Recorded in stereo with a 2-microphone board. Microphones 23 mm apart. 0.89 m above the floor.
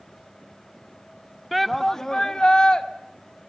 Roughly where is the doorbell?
I don't hear a doorbell.